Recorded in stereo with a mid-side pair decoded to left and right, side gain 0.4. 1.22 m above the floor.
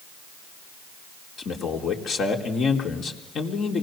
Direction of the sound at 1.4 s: 65° left.